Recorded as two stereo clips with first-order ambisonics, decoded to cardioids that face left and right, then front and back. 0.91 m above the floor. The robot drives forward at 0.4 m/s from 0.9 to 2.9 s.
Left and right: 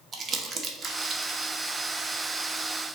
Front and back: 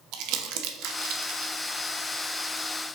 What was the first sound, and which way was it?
Crumpling, 160° right.